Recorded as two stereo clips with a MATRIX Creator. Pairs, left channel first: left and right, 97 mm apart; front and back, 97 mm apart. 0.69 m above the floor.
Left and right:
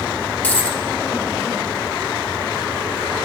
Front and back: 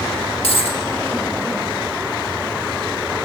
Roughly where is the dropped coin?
Ahead.